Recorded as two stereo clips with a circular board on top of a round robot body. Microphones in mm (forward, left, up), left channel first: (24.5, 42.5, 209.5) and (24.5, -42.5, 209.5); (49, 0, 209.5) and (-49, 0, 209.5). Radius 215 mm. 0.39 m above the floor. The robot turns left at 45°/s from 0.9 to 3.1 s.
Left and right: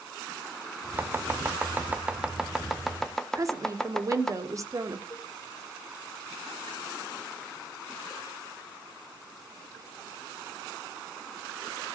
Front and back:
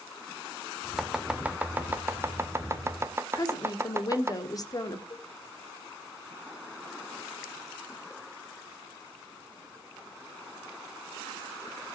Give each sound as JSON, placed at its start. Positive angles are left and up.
{"t": 1.0, "sound": "chopping", "azimuth_deg": -95, "distance_m": 1.4}
{"t": 3.4, "sound": "a woman speaking", "azimuth_deg": -45, "distance_m": 2.5}
{"t": 5.1, "sound": "a cowbell", "azimuth_deg": 35, "distance_m": 1.5}